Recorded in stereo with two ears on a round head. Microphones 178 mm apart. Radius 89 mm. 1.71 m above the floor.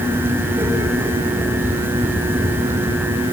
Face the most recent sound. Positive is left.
No sound to turn to.